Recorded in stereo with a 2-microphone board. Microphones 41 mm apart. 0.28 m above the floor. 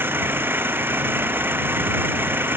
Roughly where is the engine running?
Right.